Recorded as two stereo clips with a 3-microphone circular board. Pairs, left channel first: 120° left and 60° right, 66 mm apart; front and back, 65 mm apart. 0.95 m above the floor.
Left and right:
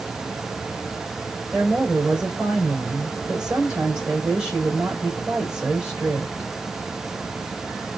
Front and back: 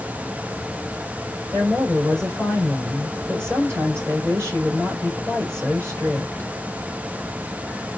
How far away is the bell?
I don't hear a bell.